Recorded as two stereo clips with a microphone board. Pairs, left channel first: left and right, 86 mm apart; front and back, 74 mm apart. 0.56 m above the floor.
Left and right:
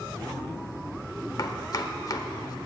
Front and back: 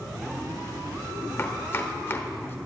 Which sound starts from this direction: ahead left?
Chopping, at 1.4 s.